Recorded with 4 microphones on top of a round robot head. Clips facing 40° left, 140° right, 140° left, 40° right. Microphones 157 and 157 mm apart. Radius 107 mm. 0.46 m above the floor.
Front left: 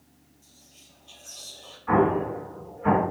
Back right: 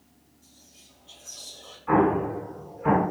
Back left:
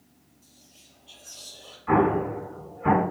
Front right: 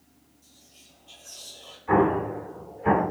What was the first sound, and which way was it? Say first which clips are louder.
Whispering: back right 1 dB, even; 105° left.